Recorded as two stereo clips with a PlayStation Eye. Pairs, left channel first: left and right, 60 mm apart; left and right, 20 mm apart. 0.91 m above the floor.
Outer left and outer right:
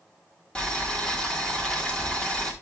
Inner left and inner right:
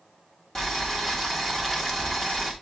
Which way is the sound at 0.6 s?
15° left (ahead or behind).